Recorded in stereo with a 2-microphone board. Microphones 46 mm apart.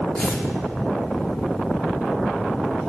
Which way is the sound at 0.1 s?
10° left (ahead or behind).